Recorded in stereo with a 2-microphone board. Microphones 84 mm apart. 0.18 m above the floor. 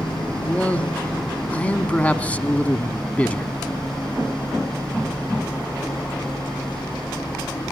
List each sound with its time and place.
0.4 s a man speaking: 15° left (ahead or behind), 1.2 m